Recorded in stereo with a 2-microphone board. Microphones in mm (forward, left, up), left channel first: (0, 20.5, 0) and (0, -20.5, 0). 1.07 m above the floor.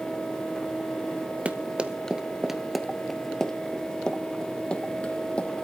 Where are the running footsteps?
30° right (ahead or behind), 1.2 m; by 5.7 s 30° left (ahead or behind), 2.5 m.